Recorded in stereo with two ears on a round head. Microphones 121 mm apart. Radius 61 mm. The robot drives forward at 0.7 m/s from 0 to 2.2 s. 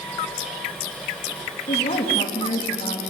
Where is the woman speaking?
50° left (ahead or behind), 2.5 m; by 3.0 s 45° left (ahead or behind), 2.5 m.